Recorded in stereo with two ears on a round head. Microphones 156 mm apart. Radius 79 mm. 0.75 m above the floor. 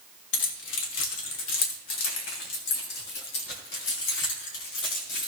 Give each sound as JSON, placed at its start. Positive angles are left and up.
{"t": 0.3, "sound": "keys jangling", "side_deg": 70, "distance_m": 2.0}